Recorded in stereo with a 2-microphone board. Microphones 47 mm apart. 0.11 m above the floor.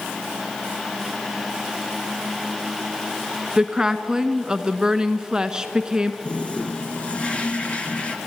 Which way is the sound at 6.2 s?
25° left (ahead or behind).